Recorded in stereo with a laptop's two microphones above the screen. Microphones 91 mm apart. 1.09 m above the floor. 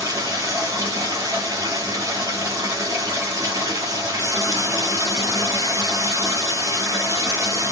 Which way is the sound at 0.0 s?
40° right (ahead or behind).